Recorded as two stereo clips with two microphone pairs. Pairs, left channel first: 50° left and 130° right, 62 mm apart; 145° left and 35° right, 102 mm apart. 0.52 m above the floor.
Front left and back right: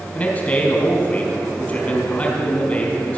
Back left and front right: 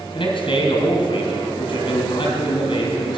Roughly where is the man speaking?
Behind left.